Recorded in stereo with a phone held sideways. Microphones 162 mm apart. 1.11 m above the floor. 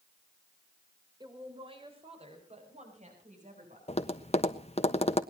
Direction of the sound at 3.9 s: 40° left (ahead or behind).